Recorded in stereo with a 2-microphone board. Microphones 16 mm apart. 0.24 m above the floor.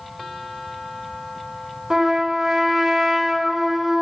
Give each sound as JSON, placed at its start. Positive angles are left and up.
{"t": 1.9, "sound": "a trumpet", "side_deg": -40, "distance_m": 1.9}